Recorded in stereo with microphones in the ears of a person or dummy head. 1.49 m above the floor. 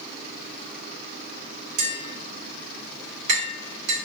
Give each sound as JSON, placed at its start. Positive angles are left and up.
{"t": 1.8, "sound": "tapping", "side_deg": -65, "distance_m": 1.8}